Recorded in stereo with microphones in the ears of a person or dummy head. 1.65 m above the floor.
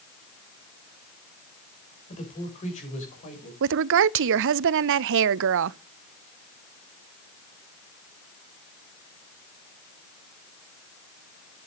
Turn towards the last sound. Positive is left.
turn(degrees=-65)  # may be behind; listen again after turning